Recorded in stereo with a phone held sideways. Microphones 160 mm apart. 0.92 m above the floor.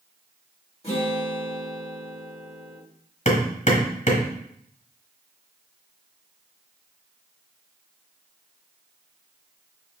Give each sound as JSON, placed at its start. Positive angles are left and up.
{"t": 0.8, "sound": "a guitar", "side_deg": 40, "distance_m": 2.0}
{"t": 3.2, "sound": "hammering", "side_deg": 50, "distance_m": 1.2}